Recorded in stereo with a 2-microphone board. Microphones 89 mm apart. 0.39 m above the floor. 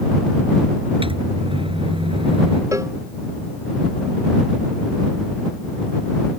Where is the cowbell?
35° right (ahead or behind).